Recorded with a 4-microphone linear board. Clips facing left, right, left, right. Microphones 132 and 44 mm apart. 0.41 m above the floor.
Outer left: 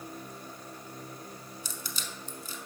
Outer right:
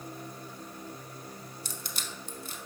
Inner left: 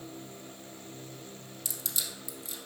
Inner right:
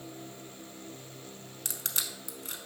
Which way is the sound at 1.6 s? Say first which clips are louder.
Even, inner right 2 dB; 60° right (ahead or behind).